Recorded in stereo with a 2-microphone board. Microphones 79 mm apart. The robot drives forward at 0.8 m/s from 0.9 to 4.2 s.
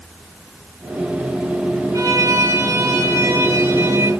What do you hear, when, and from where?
1.9 s a violin: 45° right (ahead or behind), 3.5 m; by 4.1 s 30° right (ahead or behind), 5 m